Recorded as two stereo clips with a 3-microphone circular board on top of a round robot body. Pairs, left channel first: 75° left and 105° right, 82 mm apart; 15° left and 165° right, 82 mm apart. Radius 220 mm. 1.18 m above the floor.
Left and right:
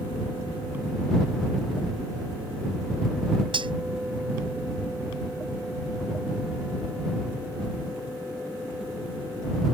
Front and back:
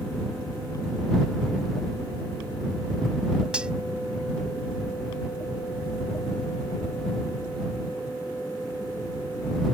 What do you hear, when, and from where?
3.5 s cutlery clinking: 85° right